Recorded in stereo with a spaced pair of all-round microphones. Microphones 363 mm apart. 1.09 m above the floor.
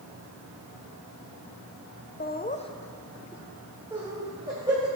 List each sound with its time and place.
2.2 s laughter: 25° left (ahead or behind), 0.6 m; by 4.9 s 15° right (ahead or behind), 2.5 m